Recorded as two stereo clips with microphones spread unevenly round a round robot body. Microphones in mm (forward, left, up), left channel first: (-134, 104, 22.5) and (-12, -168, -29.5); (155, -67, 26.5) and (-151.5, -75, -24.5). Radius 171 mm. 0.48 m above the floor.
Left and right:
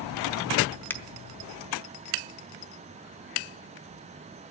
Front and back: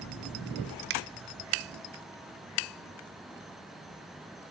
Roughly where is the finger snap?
Behind right.